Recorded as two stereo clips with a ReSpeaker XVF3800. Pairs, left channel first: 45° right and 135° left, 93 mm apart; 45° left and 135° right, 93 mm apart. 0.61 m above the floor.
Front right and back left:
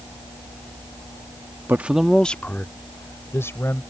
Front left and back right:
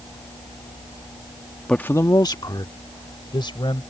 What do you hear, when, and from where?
1.7 s a man speaking: 115° left; by 3.8 s 15° left